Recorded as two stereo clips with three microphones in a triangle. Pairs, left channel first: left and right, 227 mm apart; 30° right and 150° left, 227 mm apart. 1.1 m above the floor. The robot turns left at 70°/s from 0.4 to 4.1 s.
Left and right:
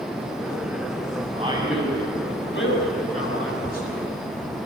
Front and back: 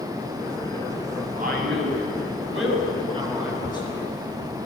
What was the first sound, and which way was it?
A man speaking, 150° right.